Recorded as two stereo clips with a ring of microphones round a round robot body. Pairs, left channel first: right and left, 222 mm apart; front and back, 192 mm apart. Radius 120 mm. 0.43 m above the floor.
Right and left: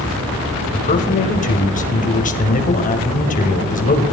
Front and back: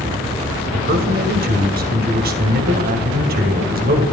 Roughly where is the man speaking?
Behind right.